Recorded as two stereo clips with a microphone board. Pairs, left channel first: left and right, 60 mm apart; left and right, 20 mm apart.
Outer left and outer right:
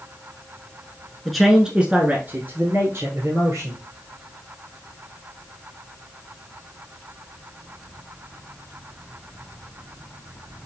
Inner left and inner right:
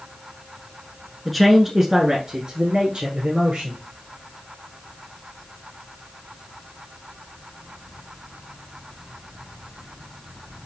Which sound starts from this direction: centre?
A man speaking, at 1.2 s.